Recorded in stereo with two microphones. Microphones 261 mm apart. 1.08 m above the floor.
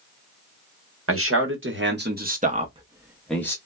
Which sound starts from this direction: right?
A man speaking, at 1.1 s.